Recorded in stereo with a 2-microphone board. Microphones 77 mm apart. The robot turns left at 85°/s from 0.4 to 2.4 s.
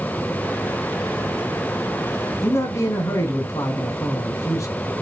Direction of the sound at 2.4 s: 45° left (ahead or behind).